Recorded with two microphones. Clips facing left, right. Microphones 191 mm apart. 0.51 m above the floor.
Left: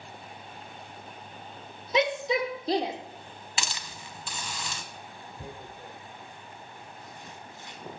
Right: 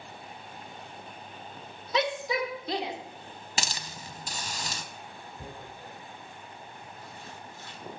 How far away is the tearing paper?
About 1.4 m.